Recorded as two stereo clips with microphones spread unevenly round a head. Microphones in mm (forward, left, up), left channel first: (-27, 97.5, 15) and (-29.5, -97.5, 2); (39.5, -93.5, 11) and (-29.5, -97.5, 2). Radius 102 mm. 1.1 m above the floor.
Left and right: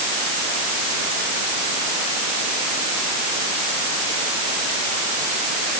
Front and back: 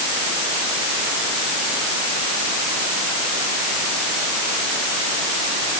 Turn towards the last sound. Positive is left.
No sound to turn to.